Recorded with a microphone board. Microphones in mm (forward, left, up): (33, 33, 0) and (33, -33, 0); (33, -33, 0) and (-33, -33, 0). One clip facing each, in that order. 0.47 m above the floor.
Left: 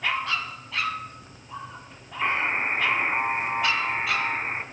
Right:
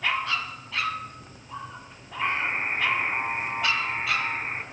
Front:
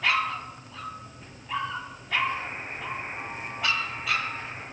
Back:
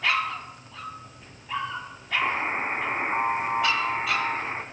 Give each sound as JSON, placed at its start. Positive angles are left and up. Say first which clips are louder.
{"t": 2.2, "sound": "a buzzer", "louder": "left 2 dB, back 4 dB", "azimuth_deg": 160, "distance_m": 1.1}